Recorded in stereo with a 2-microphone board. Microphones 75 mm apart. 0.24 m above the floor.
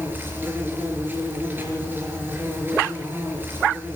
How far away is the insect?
About 4.5 m.